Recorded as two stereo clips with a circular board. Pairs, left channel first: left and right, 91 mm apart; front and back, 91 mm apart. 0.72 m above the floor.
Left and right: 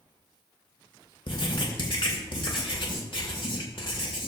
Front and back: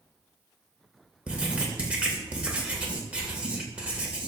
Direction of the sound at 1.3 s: 105° left.